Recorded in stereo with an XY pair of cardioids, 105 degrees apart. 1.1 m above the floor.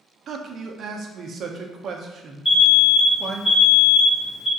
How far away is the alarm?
About 1.1 m.